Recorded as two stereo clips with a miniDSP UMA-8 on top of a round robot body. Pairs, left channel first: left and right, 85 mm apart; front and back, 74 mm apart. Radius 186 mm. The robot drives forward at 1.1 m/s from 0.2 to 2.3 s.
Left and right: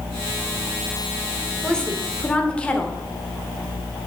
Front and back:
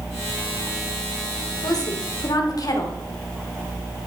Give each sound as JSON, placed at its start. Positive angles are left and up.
{"t": 1.6, "sound": "a woman speaking", "azimuth_deg": 10, "distance_m": 2.5}